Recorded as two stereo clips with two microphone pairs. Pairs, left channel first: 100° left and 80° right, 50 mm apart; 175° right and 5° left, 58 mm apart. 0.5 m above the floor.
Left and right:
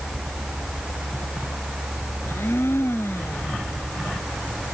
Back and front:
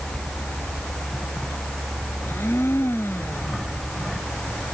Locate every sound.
2.2 s a blender: 135° left